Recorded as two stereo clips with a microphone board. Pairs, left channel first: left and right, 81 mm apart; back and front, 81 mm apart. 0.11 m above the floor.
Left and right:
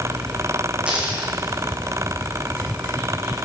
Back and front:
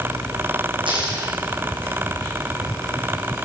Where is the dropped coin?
15° right, 3 m.